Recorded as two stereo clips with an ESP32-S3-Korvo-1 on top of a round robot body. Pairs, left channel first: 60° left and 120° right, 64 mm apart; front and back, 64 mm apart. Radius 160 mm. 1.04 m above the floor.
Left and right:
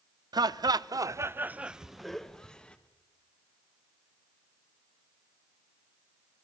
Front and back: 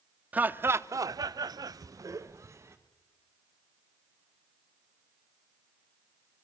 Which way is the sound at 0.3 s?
110° right.